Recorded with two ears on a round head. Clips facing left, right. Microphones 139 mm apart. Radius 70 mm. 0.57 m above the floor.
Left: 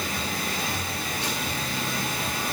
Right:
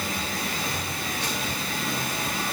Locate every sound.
Only background noise.